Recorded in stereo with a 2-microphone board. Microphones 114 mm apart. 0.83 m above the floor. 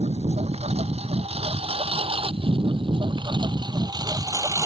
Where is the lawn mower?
70° right (ahead or behind); by 4.7 s 25° right (ahead or behind).